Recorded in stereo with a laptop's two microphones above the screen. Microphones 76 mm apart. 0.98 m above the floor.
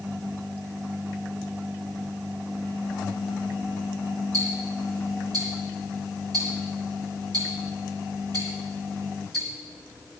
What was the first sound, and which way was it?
Ticking, 65° right (ahead or behind).